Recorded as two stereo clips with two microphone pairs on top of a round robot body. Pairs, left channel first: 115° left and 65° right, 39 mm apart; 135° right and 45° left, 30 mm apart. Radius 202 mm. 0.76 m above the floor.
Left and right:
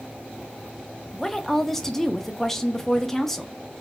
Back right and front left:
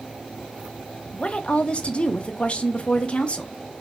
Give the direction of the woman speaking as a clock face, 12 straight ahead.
5 o'clock.